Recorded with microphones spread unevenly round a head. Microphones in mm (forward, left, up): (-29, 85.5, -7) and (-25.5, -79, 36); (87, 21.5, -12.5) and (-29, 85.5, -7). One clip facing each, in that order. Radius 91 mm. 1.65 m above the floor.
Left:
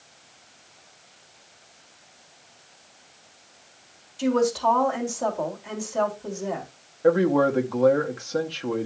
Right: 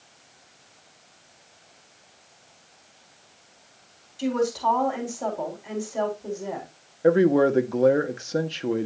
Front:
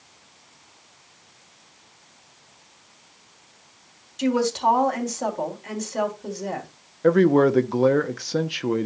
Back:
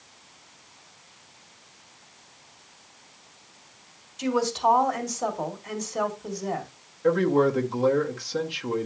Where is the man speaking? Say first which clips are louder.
Right 1 dB, front 5 dB; 40° right, 0.8 m.